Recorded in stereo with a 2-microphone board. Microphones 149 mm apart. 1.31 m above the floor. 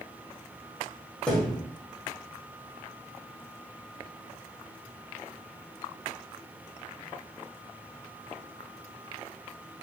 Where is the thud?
5° left (ahead or behind), 1.8 m.